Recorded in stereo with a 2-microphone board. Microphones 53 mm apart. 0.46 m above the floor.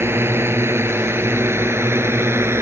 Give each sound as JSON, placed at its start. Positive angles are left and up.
{"t": 0.0, "sound": "a drone", "side_deg": -55}